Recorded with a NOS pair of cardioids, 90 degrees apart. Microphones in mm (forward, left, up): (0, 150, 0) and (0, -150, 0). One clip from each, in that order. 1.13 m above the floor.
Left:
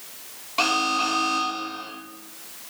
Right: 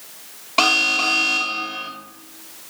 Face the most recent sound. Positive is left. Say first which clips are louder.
# right 5 dB
turn(degrees=-45)